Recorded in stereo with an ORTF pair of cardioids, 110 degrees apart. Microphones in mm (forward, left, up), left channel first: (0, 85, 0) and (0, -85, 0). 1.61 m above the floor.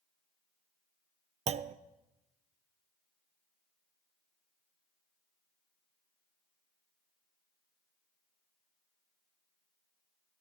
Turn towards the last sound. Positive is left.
turn(degrees=-40)